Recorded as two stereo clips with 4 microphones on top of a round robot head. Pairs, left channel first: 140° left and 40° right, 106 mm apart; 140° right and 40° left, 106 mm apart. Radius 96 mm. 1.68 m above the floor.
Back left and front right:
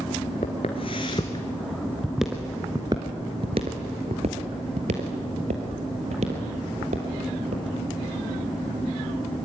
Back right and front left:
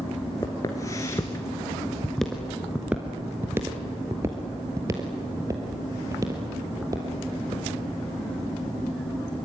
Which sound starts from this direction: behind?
Footsteps, at 0.4 s.